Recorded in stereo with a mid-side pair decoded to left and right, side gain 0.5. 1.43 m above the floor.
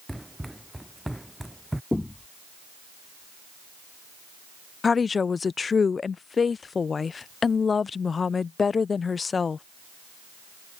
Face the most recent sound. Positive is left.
turn(degrees=35)